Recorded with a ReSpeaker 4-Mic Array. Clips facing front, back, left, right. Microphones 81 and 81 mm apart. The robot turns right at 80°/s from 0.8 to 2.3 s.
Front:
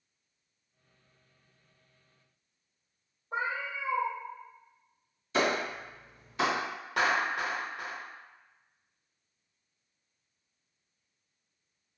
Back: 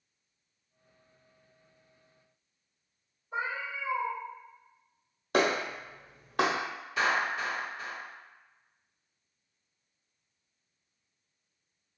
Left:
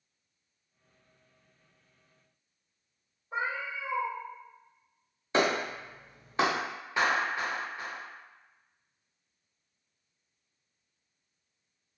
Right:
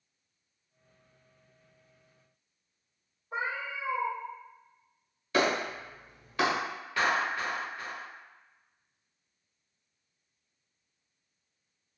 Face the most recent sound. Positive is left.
turn(degrees=20)